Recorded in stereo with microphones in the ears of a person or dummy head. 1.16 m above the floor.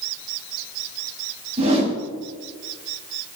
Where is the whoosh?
40° right (ahead or behind), 6.5 m.